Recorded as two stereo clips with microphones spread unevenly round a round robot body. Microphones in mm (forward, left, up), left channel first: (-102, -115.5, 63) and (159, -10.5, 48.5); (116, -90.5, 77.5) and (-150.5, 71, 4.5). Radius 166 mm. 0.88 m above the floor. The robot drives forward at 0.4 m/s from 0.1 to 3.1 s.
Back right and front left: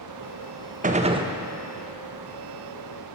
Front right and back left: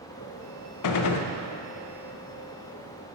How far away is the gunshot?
About 0.7 m.